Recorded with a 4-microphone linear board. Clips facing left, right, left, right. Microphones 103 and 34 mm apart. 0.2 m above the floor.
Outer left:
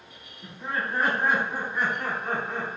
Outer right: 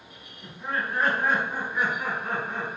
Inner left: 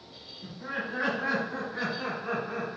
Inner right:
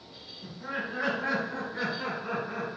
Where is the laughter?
5° left (ahead or behind), 1.4 m; by 2.7 s 25° left (ahead or behind), 1.6 m.